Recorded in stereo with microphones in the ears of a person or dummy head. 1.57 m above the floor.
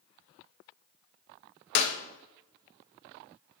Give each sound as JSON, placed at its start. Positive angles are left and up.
{"t": 1.8, "sound": "a clap", "side_deg": 65, "distance_m": 1.6}